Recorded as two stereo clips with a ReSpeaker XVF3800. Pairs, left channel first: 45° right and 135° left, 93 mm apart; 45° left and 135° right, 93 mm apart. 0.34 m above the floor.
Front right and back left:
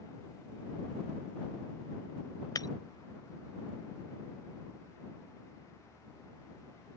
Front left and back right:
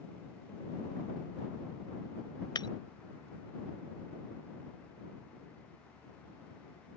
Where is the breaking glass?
5° left.